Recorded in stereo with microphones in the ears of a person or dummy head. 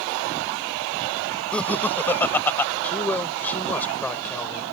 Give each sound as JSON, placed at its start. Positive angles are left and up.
{"t": 1.5, "sound": "laughter", "side_deg": 10}
{"t": 2.8, "sound": "a man speaking", "side_deg": 15}